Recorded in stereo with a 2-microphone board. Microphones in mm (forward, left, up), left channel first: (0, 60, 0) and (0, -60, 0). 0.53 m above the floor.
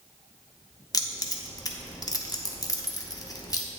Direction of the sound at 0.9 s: 30° left (ahead or behind).